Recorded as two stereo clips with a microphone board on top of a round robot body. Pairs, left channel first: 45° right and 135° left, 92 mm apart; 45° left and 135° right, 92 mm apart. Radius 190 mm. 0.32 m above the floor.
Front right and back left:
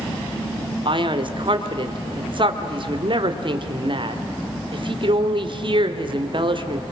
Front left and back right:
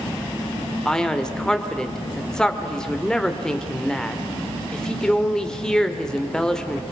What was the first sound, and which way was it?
A man speaking, 125° left.